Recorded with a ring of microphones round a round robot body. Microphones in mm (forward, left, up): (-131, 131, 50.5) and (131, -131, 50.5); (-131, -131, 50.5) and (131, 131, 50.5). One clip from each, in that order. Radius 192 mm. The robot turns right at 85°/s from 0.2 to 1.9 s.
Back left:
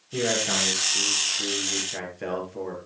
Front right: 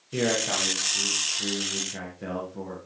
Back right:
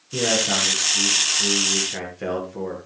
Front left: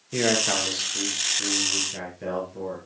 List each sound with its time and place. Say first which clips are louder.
0.1 s a man speaking: back left 1 dB, back right 2 dB; 30° left, 8 m; by 2.8 s 175° left, 8 m